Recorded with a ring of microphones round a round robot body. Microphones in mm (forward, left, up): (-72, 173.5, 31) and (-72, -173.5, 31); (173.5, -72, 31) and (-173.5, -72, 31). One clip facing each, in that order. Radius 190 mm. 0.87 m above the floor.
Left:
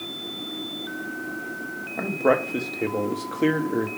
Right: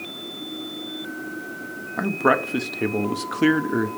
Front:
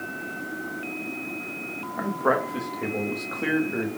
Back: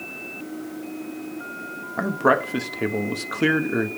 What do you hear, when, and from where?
2.0 s a man speaking: 150° right, 1.0 m